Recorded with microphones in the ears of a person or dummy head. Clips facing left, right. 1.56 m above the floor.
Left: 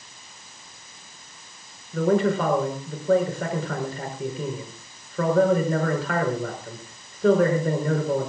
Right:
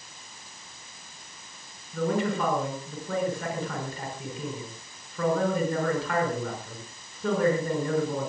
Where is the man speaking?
50° left (ahead or behind), 4.5 m.